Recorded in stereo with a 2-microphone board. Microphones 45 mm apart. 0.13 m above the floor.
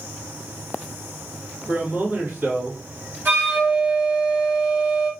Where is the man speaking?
35° right (ahead or behind), 1.9 m.